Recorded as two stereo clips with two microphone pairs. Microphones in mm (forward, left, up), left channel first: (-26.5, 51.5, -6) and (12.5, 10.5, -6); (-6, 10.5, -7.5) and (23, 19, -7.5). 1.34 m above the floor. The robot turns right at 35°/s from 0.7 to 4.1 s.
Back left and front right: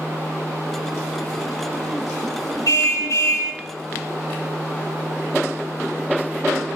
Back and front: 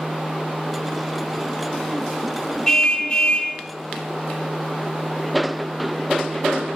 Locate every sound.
2.7 s a car horn: 130° left, 5.5 m; by 3.5 s 160° left, 5.5 m